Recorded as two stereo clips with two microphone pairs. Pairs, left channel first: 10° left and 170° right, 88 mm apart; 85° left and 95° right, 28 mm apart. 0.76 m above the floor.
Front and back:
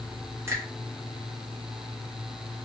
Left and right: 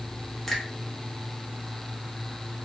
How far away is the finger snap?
About 0.9 m.